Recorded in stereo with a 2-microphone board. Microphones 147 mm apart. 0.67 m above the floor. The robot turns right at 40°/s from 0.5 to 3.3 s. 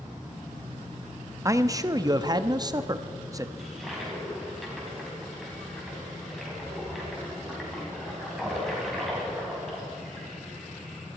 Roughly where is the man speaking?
Right.